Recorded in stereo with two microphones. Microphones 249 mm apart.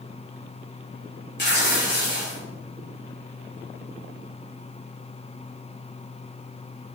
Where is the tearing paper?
45° left (ahead or behind), 4 m.